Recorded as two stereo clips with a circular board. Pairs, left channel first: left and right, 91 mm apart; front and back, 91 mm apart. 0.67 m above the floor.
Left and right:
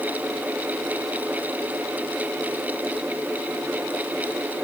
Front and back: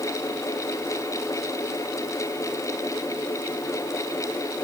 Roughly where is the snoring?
No snoring in this recording.